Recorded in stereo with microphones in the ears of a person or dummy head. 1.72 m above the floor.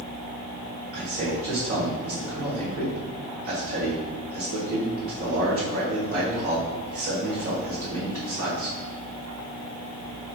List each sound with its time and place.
0.9 s a man speaking: 55° right (ahead or behind), 1.6 m